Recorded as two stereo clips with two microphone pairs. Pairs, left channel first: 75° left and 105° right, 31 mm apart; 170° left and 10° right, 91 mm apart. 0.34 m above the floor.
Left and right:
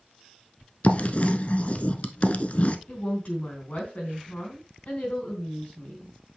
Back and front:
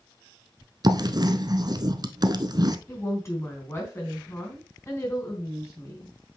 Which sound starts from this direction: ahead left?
Writing, at 0.8 s.